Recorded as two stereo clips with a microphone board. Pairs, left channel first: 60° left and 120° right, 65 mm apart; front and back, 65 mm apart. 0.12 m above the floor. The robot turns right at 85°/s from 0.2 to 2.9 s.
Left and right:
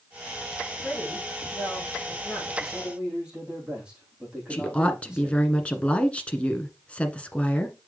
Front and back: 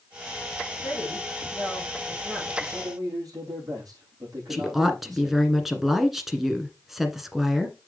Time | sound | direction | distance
0.8 | a woman speaking | 10° right | 5 m
2.6 | a man speaking | 140° left | 5.5 m
4.5 | a woman speaking | 100° left | 1.4 m